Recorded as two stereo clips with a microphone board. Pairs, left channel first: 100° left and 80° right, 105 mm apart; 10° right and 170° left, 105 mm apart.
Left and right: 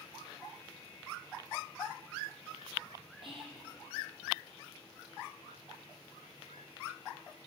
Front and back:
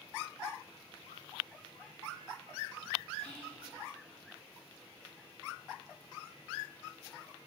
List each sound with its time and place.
3.2 s whispering: 90° right, 2.5 m